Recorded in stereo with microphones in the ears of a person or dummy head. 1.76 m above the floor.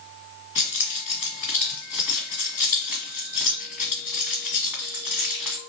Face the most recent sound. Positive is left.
turn(degrees=-10)  # may be behind; listen again after turning